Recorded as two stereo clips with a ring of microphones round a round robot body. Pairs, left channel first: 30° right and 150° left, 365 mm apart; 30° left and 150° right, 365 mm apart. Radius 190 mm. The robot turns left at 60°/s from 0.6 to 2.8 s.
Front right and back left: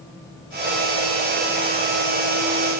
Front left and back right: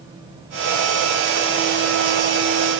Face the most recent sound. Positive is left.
No sound to turn to.